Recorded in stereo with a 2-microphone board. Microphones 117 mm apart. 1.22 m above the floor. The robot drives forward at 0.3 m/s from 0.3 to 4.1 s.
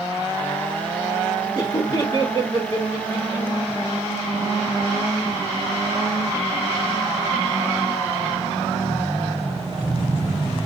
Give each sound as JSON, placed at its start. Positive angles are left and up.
{"t": 1.6, "sound": "laughter", "side_deg": 40, "distance_m": 2.5}